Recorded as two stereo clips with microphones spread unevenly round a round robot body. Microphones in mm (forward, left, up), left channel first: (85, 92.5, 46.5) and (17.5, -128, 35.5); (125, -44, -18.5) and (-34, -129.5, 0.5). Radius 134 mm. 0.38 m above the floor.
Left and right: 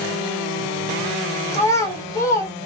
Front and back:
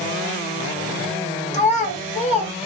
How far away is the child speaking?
About 1.5 m.